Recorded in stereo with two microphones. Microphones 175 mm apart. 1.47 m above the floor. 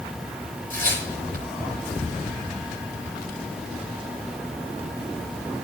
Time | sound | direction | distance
0.7 | tearing paper | 55° right (ahead or behind) | 9.5 m